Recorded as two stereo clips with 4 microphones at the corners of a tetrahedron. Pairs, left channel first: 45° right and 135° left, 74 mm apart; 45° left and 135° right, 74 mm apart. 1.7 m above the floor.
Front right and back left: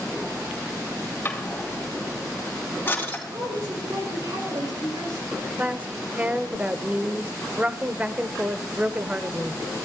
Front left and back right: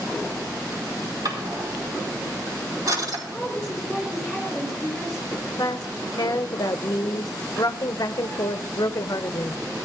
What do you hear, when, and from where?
1.2 s a drawer: 110° right, 4.5 m
3.3 s a woman speaking: 135° left, 6 m
5.3 s a woman speaking: 65° left, 0.8 m